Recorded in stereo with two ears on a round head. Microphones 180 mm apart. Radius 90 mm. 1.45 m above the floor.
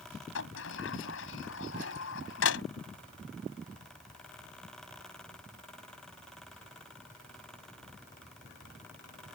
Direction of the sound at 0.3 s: 70° left (ahead or behind).